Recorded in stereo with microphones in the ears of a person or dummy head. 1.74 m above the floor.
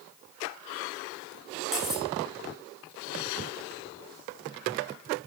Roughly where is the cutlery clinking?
Centre.